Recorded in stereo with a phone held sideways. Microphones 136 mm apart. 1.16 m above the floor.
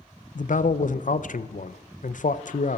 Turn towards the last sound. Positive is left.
turn(degrees=70)  # may be behind; listen again after turning